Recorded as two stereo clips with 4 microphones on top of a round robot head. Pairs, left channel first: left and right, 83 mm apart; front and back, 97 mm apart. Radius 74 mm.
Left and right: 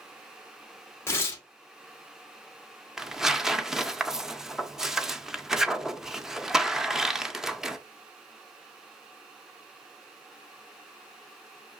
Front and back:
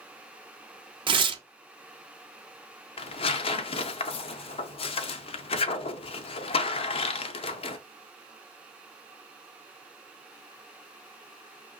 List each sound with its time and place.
1.1 s tearing paper: 150° left, 0.7 m
3.0 s tearing paper: 5° right, 0.6 m